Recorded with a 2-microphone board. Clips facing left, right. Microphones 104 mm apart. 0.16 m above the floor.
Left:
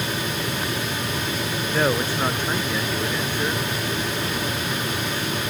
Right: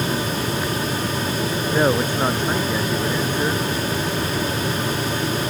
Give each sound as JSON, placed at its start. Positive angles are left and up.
{"t": 1.7, "sound": "a man speaking", "side_deg": -15}